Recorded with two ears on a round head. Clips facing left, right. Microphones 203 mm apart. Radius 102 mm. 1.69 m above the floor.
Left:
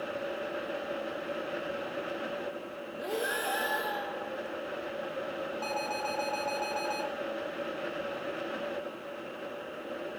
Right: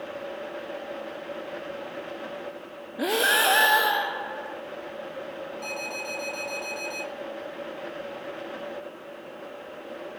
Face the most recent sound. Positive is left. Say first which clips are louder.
# even
turn(degrees=-15)  # may be behind; listen again after turning